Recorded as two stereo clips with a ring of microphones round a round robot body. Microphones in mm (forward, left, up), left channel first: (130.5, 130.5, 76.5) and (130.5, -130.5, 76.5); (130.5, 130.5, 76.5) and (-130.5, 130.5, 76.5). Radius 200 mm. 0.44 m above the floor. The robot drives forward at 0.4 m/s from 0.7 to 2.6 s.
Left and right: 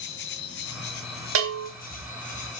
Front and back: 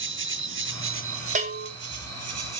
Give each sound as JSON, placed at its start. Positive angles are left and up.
{"t": 0.0, "sound": "an insect", "azimuth_deg": 140, "distance_m": 1.1}
{"t": 1.4, "sound": "a bell", "azimuth_deg": -115, "distance_m": 1.9}